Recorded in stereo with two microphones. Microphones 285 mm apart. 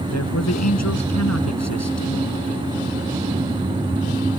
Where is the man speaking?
65° left (ahead or behind).